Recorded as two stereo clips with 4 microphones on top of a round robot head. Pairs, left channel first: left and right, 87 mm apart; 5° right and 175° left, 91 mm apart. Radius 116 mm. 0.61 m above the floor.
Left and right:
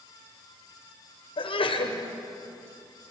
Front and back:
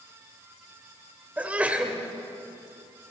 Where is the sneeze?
100° left, 2.5 m.